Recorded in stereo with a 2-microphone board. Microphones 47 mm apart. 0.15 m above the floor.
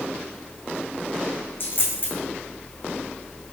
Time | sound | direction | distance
1.6 | a dropped coin | 50° left (ahead or behind) | 2 m